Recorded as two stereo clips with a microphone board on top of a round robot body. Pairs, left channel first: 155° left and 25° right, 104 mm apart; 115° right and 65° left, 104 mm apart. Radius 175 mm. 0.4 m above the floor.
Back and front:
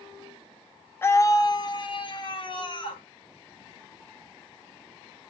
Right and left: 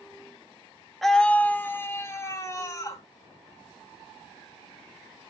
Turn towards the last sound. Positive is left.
turn(degrees=-170)